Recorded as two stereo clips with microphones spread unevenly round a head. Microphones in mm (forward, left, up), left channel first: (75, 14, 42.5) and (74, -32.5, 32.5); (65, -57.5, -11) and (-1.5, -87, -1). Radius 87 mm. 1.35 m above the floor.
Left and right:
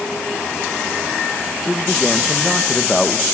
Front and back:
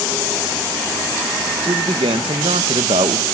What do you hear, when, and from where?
1.6 s a man speaking: 175° left, 1.1 m